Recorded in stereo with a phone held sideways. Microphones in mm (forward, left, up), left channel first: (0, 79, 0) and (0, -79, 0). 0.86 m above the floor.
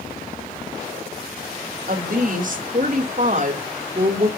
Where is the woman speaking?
60° right (ahead or behind), 3.5 m; by 4.3 s 45° right (ahead or behind), 2.5 m.